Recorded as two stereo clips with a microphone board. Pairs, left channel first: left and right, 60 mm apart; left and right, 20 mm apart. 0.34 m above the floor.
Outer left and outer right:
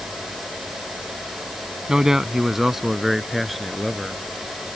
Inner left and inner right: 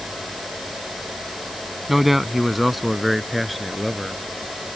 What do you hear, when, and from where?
1.9 s a man speaking: 10° right (ahead or behind); by 4.2 s centre (ahead or behind)